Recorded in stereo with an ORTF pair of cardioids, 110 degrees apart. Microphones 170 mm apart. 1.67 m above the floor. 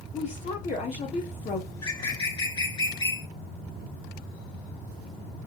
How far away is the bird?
About 2.5 m.